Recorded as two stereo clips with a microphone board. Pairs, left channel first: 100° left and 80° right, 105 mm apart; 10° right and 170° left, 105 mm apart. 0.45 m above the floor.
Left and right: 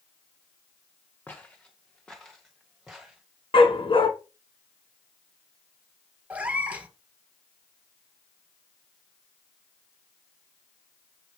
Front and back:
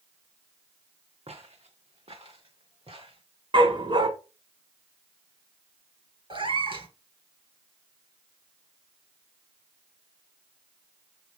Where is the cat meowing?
155° right, 1.5 m.